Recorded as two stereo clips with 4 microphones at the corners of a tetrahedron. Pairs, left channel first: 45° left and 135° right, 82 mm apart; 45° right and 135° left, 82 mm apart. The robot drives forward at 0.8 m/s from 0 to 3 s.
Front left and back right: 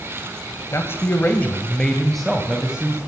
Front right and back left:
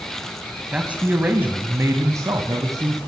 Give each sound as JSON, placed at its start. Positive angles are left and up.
{"t": 0.7, "sound": "a man speaking", "azimuth_deg": 65, "distance_m": 1.7}